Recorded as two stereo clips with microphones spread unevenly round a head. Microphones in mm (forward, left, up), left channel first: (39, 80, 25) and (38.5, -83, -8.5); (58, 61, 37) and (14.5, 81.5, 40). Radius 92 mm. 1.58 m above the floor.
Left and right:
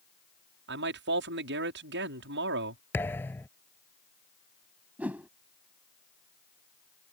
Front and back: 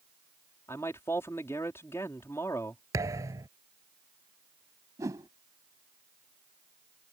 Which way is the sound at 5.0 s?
175° right.